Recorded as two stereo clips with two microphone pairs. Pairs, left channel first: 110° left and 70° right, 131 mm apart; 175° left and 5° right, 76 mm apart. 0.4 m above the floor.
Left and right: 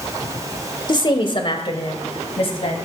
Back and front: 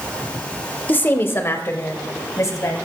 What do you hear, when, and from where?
0.9 s a woman speaking: 135° left, 1.1 m; by 2.8 s 140° left, 2.5 m